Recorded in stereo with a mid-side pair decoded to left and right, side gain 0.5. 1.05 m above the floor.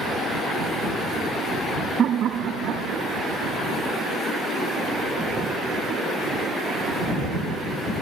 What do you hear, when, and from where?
2.0 s laughter: 50° right; by 4.1 s 75° right